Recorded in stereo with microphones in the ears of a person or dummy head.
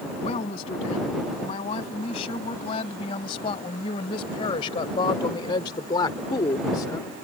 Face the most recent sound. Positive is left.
turn(degrees=15)  # may be behind; listen again after turning